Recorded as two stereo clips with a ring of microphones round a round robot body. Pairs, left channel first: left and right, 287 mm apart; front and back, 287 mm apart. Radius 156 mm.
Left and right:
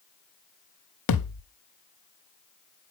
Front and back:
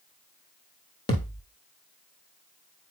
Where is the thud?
80° left, 1.0 m.